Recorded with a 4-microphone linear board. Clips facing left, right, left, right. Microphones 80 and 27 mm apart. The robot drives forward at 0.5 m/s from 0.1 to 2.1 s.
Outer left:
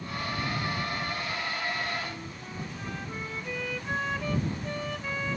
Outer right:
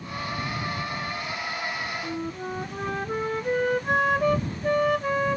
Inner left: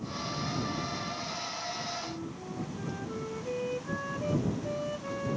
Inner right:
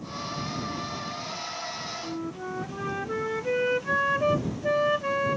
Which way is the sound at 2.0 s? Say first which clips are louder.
Outer right 8 dB, inner right 6 dB; 55° right (ahead or behind).